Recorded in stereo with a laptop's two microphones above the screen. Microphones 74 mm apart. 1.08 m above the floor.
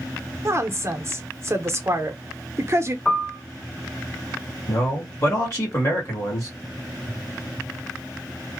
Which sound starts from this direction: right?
A woman speaking, at 0.5 s.